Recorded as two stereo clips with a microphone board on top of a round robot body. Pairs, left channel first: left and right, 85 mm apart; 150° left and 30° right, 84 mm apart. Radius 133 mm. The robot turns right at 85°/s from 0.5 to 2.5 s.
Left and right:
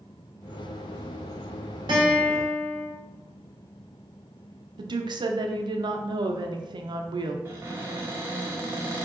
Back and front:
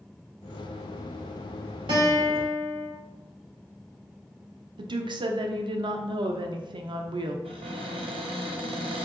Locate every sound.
1.9 s a guitar: 55° right, 0.9 m; by 2.9 s 5° right, 0.9 m
4.8 s a woman speaking: 60° right, 0.5 m
7.5 s a cupboard door: 25° right, 0.9 m